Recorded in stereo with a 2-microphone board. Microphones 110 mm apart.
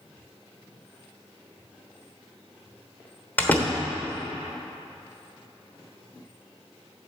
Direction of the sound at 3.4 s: 15° left (ahead or behind).